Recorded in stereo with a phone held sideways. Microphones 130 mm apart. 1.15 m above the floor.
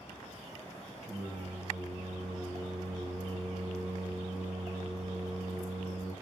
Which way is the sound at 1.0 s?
60° right (ahead or behind).